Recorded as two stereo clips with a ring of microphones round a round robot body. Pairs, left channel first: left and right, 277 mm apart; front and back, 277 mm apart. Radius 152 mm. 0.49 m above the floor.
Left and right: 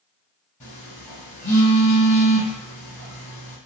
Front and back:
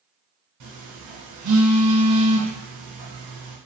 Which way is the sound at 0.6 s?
155° left.